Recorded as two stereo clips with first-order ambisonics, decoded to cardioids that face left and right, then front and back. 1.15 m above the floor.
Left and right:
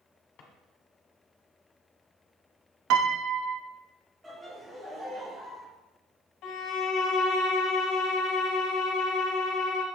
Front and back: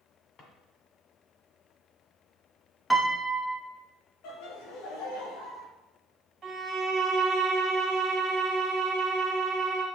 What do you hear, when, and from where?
0.4 s a drawer: 55° left, 1.8 m
2.9 s a piano: 85° right, 0.6 m
4.2 s laughter: 10° right, 1.8 m
6.4 s a violin: 115° left, 1.5 m